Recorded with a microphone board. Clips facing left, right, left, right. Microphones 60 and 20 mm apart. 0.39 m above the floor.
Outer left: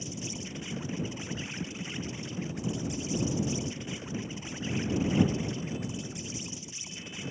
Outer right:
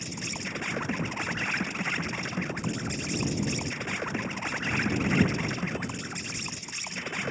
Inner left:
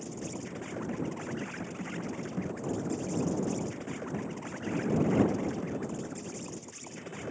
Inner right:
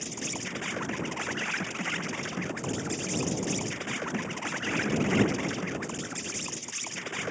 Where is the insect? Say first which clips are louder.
Outer right 3 dB, inner right 4 dB; 70° right (ahead or behind).